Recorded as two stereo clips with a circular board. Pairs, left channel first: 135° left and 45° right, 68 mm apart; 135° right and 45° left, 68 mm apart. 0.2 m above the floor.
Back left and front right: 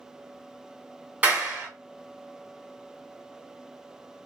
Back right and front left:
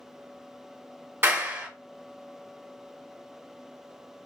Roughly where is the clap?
Ahead.